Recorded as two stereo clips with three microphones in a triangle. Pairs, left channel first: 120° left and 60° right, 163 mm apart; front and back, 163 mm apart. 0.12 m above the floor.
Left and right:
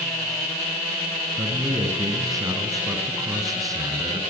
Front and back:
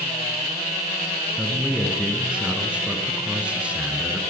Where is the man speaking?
105° right, 1.4 m.